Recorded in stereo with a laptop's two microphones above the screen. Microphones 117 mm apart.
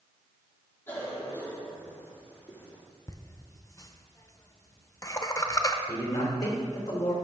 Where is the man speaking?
30° left (ahead or behind), 3 m.